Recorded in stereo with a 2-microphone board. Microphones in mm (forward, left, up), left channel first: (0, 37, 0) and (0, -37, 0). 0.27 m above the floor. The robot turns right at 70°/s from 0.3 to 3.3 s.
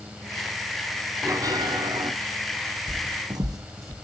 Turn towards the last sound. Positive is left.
turn(degrees=-40)  # may be behind; listen again after turning